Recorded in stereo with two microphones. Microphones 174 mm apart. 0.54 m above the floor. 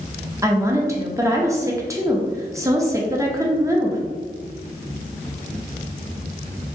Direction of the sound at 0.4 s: 20° right (ahead or behind).